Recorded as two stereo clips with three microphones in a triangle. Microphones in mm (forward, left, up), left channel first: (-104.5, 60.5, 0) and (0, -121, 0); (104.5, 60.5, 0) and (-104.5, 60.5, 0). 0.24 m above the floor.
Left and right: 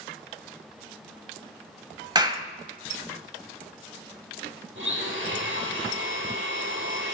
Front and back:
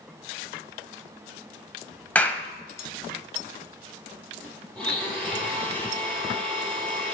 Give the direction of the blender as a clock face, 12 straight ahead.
3 o'clock.